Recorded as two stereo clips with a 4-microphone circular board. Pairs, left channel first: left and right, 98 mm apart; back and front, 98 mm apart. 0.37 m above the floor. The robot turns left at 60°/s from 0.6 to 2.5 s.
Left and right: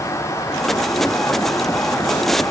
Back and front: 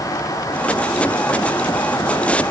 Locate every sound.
Only background noise.